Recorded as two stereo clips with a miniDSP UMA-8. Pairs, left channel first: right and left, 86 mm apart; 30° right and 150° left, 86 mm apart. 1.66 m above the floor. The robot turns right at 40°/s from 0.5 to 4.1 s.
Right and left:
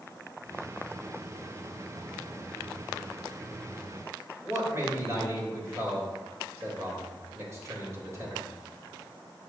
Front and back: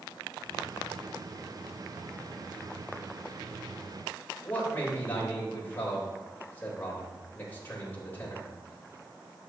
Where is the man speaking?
35° left, 3.5 m.